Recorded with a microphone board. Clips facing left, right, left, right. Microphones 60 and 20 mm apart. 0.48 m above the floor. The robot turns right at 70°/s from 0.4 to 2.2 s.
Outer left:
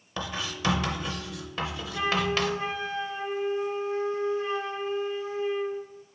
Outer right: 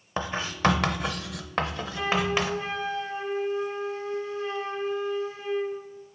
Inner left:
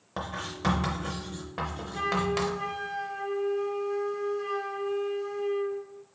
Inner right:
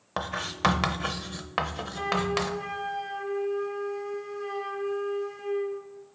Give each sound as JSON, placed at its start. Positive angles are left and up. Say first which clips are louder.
{"t": 0.2, "sound": "writing", "louder": "outer right 6 dB, inner right 6 dB", "side_deg": -35, "distance_m": 0.6}
{"t": 1.9, "sound": "a flute", "louder": "even, even", "side_deg": 15, "distance_m": 1.7}